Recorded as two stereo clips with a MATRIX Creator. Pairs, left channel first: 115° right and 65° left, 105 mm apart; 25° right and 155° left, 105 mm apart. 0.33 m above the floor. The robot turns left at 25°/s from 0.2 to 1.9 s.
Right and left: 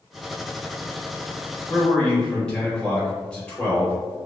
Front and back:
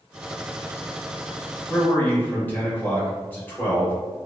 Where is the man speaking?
45° right, 0.9 m; by 4.0 s 50° right, 0.9 m.